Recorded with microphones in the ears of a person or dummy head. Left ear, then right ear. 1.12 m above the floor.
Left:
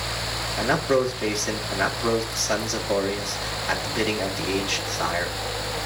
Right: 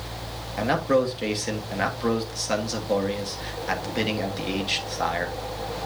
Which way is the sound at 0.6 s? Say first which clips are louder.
Even; 10° right (ahead or behind).